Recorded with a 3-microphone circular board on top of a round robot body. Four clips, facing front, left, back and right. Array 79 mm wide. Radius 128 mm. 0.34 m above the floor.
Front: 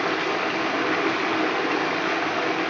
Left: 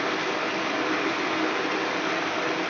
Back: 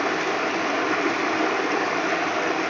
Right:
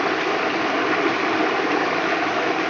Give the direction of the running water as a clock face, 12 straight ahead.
3 o'clock.